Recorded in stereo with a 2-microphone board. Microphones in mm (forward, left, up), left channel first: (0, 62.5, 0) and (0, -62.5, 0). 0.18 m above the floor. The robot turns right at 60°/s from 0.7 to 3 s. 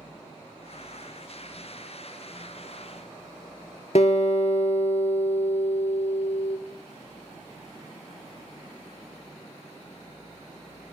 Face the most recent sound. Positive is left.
turn(degrees=60)  # may be behind; listen again after turning